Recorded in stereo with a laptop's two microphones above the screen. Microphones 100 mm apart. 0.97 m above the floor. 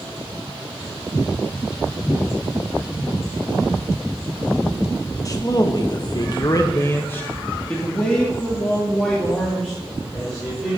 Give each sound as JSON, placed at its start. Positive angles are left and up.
{"t": 5.2, "sound": "a man speaking", "side_deg": 35, "distance_m": 1.3}